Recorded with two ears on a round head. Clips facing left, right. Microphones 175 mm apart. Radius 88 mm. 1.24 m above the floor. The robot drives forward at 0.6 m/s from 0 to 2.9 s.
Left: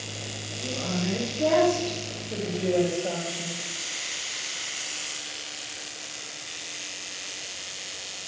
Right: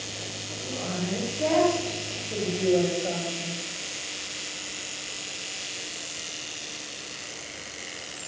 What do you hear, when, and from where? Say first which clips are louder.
0.6 s a woman speaking: left 2 dB; 5° left (ahead or behind), 4 m; by 3.6 s 10° left (ahead or behind), 2.5 m